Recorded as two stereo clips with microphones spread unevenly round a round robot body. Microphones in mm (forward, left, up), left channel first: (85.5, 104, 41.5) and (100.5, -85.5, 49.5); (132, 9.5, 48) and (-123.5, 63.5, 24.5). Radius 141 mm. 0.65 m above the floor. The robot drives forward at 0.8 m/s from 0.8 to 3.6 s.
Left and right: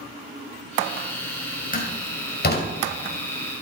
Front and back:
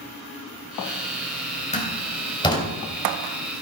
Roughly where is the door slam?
Ahead left.